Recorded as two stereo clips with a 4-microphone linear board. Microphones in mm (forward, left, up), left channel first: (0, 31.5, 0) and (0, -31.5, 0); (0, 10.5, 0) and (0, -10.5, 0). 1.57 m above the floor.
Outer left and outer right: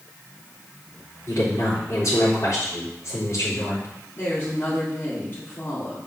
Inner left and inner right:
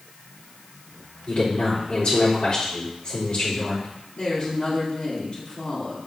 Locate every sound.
1.3 s a woman speaking: 60° left (ahead or behind), 4 m
4.2 s a woman speaking: 40° left (ahead or behind), 3.5 m